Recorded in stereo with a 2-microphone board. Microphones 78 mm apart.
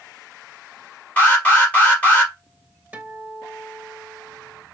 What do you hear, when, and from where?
1.2 s an alarm: 20° left (ahead or behind), 3 m
2.9 s a guitar: 20° right (ahead or behind), 1.2 m